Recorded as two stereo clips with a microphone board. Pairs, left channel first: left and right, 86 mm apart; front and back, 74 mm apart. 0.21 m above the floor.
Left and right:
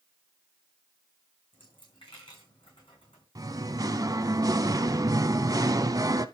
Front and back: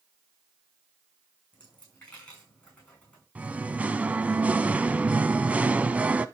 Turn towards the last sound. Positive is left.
turn(degrees=-115)